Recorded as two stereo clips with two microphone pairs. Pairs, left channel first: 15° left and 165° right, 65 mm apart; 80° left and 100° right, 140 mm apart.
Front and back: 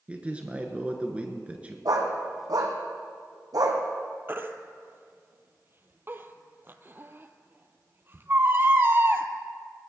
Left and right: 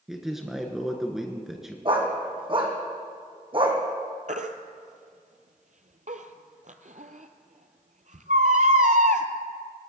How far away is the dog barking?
About 2 m.